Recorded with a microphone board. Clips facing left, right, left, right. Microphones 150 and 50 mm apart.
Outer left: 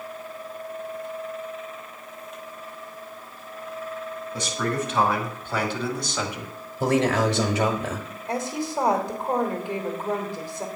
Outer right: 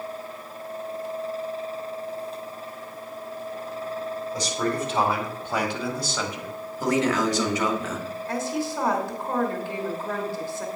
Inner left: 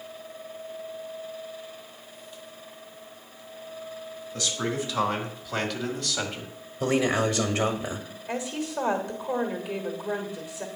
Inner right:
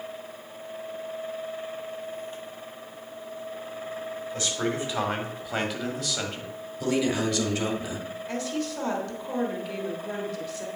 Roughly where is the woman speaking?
Centre.